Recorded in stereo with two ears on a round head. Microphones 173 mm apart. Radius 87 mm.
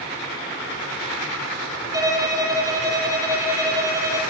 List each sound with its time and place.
1.9 s a violin: 20° right (ahead or behind), 2.5 m